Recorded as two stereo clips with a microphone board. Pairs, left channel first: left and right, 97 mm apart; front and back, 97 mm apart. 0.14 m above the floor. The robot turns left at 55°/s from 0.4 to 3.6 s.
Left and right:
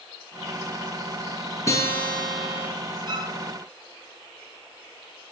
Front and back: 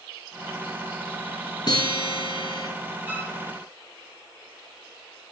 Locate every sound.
1.7 s a guitar: 35° left, 3 m; by 2.7 s 20° right, 3 m
3.1 s a violin: 115° right, 1.9 m; by 3.4 s 130° right, 1.9 m